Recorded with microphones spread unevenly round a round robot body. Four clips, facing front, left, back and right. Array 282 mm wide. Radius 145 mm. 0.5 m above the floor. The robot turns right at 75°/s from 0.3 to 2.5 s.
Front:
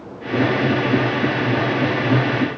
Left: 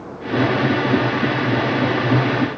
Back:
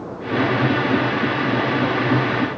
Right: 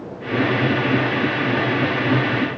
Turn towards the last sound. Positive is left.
No sound to turn to.